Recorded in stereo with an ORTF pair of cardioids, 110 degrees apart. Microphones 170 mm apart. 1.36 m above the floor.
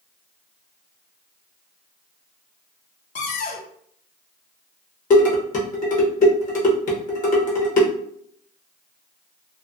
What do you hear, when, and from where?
3.1 s a cupboard door: 45° left, 0.6 m
5.1 s dishes clattering: 50° left, 1.0 m